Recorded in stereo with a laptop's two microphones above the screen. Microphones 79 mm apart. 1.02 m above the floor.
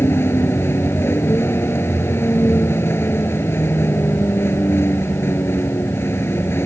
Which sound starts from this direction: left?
A vehicle, at 0.0 s.